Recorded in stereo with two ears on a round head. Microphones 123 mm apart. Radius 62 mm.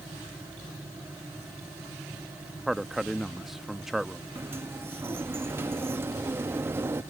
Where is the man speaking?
Centre (ahead or behind).